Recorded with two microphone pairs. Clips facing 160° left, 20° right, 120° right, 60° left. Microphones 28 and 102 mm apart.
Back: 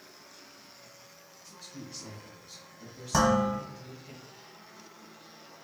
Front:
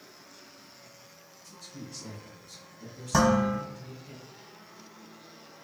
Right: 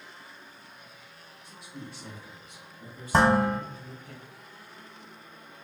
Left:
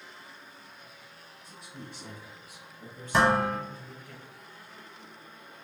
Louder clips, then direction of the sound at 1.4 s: Front 1 dB, right 2 dB; 95° left.